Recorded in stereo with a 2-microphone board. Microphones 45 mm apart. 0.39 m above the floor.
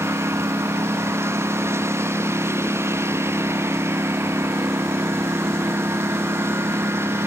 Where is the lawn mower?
70° right (ahead or behind); by 7.3 s 65° right (ahead or behind).